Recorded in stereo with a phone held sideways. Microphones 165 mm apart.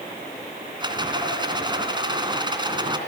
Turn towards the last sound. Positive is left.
turn(degrees=-25)  # may be behind; listen again after turning